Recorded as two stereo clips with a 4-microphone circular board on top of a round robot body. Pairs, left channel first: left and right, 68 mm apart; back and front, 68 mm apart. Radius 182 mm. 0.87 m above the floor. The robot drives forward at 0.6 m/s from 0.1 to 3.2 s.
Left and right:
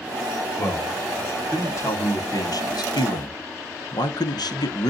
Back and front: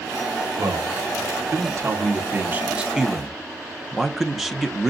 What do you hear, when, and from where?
0.6 s a man speaking: 30° left, 1.9 m; by 4.9 s 90° left, 1.0 m